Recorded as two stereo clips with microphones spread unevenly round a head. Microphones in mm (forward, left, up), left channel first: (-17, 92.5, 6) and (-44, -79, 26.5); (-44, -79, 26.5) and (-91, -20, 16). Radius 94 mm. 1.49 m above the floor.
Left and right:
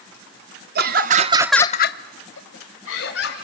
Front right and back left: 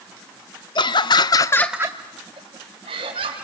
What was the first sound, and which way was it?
Laughter, 60° right.